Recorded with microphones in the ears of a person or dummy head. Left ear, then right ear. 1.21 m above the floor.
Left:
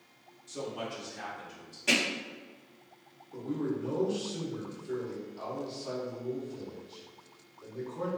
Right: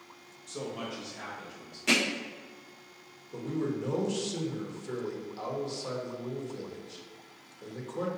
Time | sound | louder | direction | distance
0.5 | a man speaking | even | 30° right (ahead or behind) | 0.8 m
1.9 | hammering | right 1 dB | 15° right (ahead or behind) | 1.3 m
3.3 | a man speaking | right 1 dB | 75° right (ahead or behind) | 1.0 m